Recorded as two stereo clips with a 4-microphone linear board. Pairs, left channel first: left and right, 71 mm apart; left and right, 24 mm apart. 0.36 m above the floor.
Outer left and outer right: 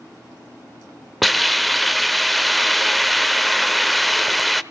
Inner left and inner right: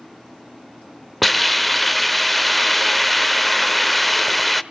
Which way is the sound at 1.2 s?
Centre (ahead or behind).